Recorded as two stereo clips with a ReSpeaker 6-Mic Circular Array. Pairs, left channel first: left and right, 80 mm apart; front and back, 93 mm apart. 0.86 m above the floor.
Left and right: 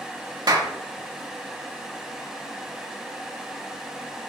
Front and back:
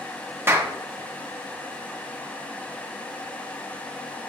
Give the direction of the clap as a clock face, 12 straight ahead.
4 o'clock.